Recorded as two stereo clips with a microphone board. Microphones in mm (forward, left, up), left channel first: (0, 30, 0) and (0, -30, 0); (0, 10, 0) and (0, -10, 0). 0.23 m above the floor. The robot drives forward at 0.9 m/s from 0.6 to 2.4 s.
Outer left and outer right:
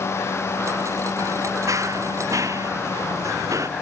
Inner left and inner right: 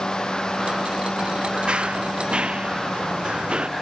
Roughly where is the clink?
No clink in this recording.